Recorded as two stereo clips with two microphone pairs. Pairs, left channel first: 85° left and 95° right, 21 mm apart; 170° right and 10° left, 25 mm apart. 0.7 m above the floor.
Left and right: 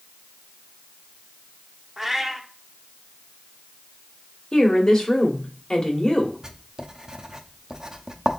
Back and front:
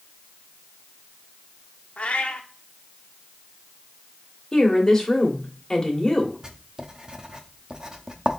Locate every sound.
2.0 s a cat meowing: 175° right, 0.7 m
4.5 s a woman speaking: 130° left, 1.3 m
6.4 s writing: 40° right, 0.6 m